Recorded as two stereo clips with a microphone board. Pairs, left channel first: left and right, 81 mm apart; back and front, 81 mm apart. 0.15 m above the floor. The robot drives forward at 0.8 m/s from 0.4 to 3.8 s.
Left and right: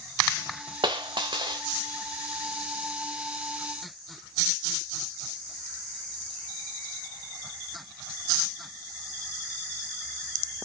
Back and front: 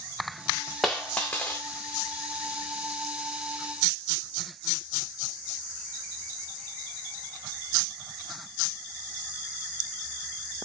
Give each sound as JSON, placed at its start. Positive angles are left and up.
{"t": 0.8, "sound": "a dropped coin", "azimuth_deg": -95, "distance_m": 1.7}